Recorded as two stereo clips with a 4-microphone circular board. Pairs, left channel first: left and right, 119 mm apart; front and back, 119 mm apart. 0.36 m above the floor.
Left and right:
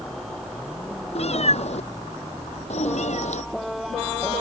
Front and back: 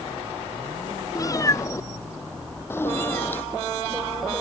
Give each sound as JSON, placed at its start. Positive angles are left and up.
{"t": 1.1, "sound": "a cat meowing", "azimuth_deg": 60}